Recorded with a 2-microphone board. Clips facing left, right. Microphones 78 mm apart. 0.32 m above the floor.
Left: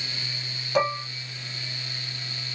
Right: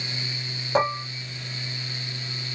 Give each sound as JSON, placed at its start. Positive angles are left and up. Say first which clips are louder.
{"t": 0.8, "sound": "dishes clattering", "louder": "right 1 dB", "side_deg": -30, "distance_m": 1.3}